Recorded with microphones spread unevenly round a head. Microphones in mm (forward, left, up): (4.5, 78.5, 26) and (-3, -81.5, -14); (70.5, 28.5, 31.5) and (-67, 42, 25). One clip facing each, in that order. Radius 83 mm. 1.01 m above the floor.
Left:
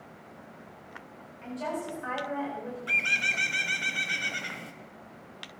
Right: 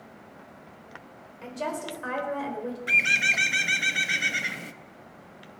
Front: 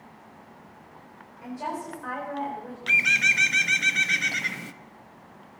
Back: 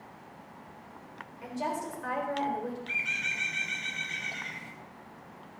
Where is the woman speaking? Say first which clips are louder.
Right 1 dB, front 1 dB; 120° right, 4 m; by 2.8 s 130° right, 4 m.